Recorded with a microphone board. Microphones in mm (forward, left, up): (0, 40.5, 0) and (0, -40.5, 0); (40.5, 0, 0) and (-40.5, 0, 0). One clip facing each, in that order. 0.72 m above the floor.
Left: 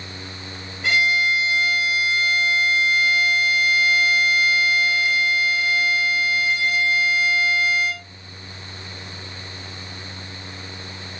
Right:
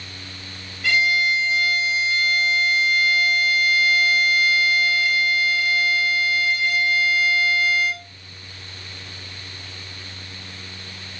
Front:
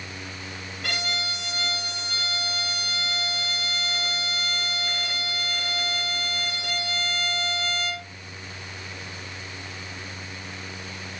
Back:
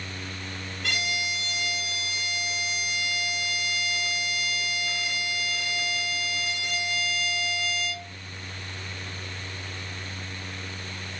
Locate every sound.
0.8 s a violin: 20° left, 3 m